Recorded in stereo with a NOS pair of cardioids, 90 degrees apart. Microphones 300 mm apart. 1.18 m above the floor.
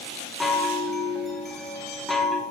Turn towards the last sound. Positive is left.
turn(degrees=0)